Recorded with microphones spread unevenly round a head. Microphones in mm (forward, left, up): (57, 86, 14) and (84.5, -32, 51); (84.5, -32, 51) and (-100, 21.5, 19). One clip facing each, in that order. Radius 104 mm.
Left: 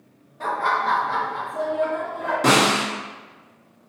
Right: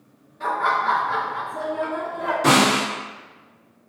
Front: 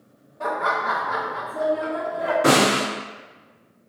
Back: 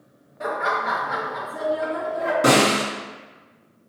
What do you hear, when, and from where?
0.4 s laughter: 100° left, 1.3 m; by 2.3 s 175° left, 1.3 m
2.4 s a snare drum: 130° left, 1.7 m